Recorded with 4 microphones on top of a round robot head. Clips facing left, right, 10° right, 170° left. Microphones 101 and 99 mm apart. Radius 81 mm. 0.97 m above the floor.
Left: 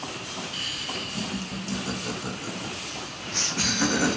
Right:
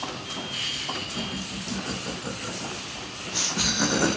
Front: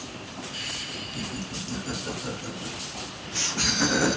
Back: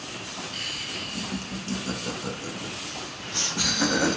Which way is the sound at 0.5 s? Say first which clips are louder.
Right 1 dB, back 1 dB; 160° left.